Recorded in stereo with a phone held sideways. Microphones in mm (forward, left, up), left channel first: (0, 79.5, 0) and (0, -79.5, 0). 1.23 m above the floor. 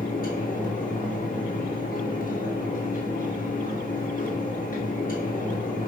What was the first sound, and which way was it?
A fan, 60° left (ahead or behind).